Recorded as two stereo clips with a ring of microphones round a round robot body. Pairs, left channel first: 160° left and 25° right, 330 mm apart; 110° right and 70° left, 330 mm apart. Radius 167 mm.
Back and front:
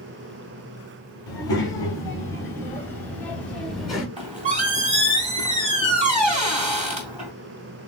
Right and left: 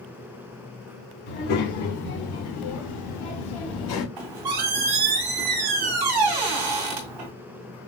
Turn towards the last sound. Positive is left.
turn(degrees=50)